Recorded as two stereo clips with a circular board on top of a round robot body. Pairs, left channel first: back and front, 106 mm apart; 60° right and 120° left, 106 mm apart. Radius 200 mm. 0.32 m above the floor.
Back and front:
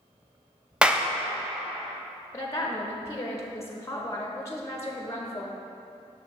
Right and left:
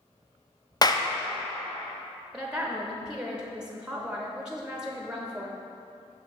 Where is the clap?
75° right, 0.7 m.